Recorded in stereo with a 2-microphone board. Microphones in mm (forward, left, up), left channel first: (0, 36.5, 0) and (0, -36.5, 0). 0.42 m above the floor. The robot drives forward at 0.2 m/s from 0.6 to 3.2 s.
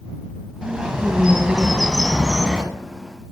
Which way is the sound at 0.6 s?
15° right (ahead or behind).